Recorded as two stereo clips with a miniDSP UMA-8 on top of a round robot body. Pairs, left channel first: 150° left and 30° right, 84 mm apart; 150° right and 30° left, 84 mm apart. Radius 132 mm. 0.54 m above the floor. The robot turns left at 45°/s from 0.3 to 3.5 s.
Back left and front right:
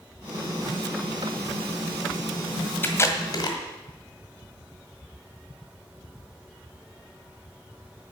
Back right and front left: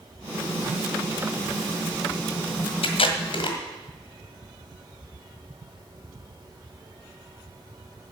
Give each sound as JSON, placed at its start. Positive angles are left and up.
{"t": 2.8, "sound": "tape being pulled", "azimuth_deg": -145, "distance_m": 1.7}